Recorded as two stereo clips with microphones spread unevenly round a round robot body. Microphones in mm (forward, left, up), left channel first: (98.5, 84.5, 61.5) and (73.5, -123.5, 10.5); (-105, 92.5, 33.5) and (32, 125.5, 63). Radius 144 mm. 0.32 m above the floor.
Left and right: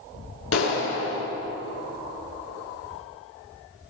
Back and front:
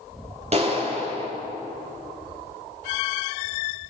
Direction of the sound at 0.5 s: 55° left.